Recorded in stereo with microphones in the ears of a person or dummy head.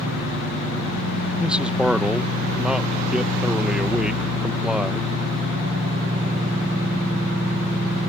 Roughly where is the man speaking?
Centre.